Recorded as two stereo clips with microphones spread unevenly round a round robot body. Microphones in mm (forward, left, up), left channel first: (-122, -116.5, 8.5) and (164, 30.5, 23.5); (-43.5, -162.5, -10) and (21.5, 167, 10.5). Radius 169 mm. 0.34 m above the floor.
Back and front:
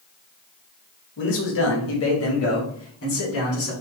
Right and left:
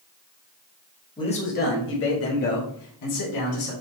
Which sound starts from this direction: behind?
A man speaking, at 1.2 s.